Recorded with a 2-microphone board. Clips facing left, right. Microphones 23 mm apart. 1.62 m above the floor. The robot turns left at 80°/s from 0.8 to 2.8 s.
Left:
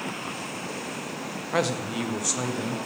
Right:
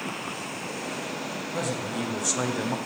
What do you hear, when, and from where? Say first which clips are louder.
1.5 s a man speaking: left 5 dB; 60° left, 1.2 m; by 2.8 s 40° right, 1.2 m